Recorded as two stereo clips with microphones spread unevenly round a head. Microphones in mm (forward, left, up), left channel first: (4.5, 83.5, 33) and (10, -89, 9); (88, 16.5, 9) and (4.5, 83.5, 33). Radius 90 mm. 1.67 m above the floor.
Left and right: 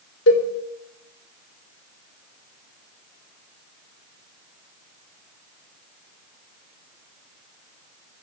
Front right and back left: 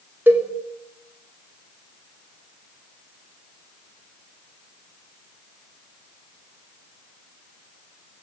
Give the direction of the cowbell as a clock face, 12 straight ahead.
10 o'clock.